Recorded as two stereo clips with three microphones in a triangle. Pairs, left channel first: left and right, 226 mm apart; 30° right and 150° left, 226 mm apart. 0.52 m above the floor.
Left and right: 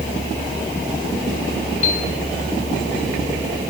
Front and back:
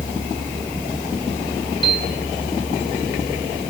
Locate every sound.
1.8 s a piano: 35° left, 2 m